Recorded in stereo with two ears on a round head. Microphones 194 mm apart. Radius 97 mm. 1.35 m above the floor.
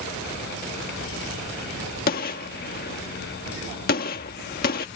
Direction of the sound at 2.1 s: 45° left (ahead or behind).